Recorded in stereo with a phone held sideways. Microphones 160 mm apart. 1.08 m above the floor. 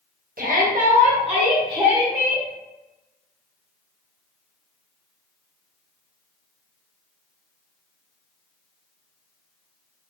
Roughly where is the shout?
Right.